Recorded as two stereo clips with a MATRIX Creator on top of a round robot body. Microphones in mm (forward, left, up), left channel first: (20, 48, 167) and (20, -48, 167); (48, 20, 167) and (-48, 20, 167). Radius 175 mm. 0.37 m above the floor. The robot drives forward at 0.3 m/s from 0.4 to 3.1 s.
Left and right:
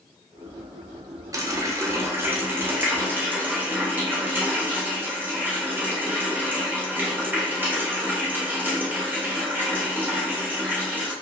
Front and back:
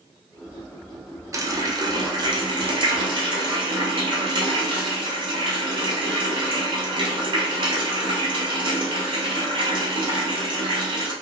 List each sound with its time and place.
1.3 s a running tap: 135° right, 0.7 m; by 11.1 s 160° right, 1.0 m